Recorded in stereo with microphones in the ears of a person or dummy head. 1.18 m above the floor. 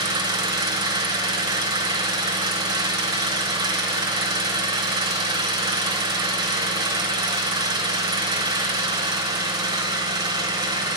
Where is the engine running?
25° right (ahead or behind), 1.3 m.